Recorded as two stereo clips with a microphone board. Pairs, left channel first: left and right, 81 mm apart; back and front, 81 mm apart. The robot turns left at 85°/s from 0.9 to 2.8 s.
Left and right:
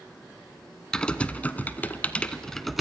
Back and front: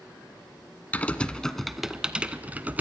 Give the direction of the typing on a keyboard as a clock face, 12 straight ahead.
7 o'clock.